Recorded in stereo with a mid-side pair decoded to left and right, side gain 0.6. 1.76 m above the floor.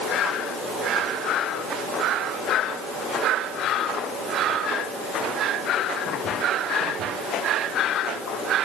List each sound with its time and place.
Only background noise.